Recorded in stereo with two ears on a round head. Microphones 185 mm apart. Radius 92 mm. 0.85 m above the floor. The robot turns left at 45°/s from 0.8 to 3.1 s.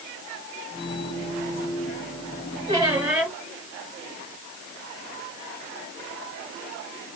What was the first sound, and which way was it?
A squeak, 25° right (ahead or behind).